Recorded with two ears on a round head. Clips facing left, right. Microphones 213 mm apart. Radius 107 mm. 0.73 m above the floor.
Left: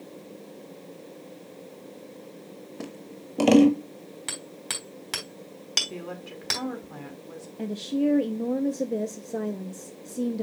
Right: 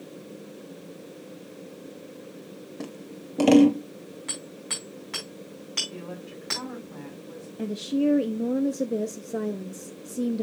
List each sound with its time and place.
2.8 s scissors: centre (ahead or behind), 0.8 m
4.3 s hammering: 60° left (ahead or behind), 4 m
5.9 s a woman speaking: 70° left (ahead or behind), 2 m
7.6 s a woman speaking: 5° right (ahead or behind), 0.6 m